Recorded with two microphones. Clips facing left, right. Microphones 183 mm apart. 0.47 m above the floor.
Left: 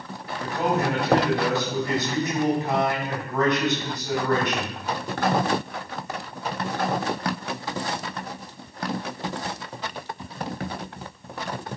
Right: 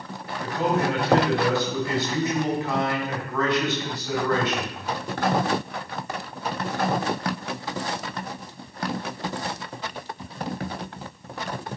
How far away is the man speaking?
About 4 m.